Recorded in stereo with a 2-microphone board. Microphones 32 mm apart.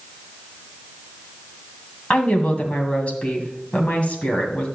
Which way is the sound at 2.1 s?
40° left (ahead or behind).